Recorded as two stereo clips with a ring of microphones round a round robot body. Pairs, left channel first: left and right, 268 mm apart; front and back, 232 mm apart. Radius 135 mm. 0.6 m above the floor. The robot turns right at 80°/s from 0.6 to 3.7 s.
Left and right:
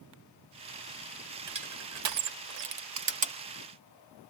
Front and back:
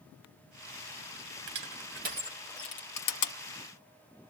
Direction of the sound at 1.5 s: 165° right.